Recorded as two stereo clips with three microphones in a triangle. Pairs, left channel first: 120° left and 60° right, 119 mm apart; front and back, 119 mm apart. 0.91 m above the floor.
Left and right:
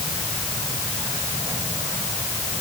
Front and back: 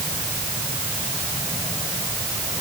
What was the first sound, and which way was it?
Only background noise.